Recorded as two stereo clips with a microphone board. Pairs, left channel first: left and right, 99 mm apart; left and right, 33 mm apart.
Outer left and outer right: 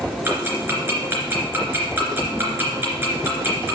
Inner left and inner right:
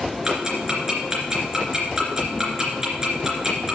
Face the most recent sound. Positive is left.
turn(degrees=-20)  # may be behind; listen again after turning